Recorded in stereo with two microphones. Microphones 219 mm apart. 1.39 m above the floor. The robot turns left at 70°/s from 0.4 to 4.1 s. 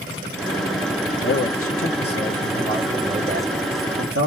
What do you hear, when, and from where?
1.2 s a man speaking: 110° left, 1.4 m; by 4.3 s 90° right, 1.4 m